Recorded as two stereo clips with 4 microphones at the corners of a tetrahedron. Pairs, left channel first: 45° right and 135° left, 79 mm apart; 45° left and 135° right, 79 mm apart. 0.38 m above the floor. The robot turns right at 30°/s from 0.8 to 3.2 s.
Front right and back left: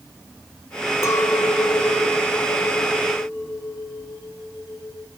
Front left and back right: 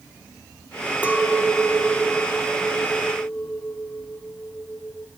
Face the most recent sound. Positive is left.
turn(degrees=-10)